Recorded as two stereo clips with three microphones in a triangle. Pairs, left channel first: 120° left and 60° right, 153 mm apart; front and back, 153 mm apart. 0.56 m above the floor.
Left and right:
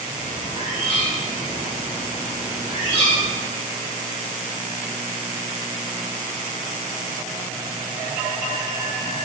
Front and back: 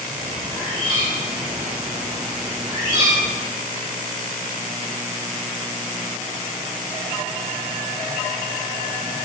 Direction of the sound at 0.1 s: 160° left.